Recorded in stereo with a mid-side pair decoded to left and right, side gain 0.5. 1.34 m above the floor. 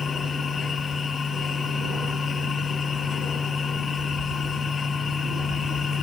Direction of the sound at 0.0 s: 40° left.